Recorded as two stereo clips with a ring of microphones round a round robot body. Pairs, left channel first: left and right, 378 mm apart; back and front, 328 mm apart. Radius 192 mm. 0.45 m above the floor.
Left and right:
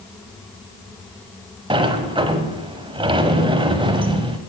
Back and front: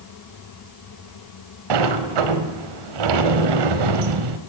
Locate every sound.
1.7 s a sliding door: 10° right, 1.0 m